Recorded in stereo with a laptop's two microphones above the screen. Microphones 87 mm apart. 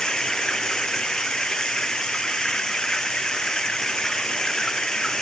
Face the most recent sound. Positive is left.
turn(degrees=5)  # may be behind; listen again after turning